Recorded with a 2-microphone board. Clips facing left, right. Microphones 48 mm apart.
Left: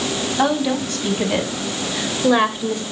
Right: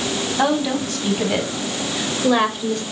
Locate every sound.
0.4 s a woman speaking: centre (ahead or behind), 4.5 m; by 2.8 s 10° left (ahead or behind), 2.5 m